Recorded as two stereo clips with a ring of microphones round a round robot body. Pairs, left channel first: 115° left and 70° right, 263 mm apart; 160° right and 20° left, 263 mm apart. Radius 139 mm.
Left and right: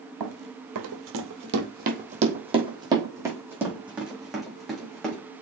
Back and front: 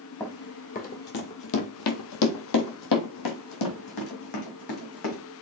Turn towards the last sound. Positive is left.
turn(degrees=-160)